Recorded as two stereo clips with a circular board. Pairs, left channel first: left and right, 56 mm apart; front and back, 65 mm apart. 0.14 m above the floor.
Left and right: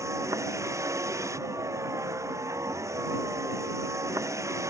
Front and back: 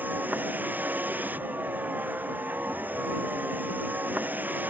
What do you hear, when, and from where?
0.0 s a vehicle: 115° right